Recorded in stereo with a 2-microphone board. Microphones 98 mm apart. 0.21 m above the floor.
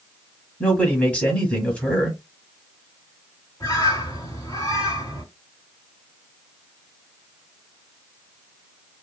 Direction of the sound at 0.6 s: 10° left (ahead or behind).